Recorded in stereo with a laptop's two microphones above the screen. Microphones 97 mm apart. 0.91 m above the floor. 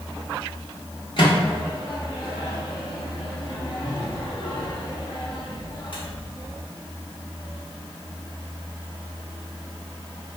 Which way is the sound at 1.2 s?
55° left (ahead or behind).